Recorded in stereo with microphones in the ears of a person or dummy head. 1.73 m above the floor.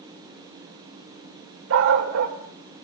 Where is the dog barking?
65° right (ahead or behind), 3 m.